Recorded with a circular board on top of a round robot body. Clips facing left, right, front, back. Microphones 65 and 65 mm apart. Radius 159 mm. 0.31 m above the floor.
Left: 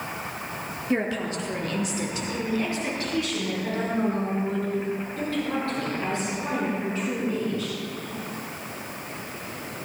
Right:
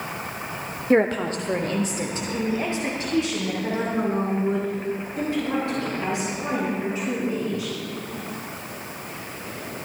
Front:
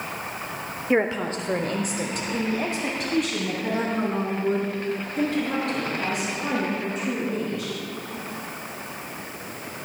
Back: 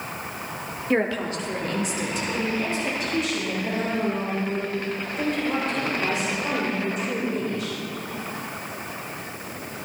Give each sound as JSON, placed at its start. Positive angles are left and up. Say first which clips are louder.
{"t": 0.9, "sound": "a woman speaking", "louder": "right 7 dB, front 1 dB", "azimuth_deg": -75, "distance_m": 1.1}